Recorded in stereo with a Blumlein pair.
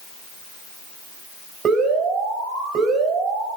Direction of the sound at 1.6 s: 20° right.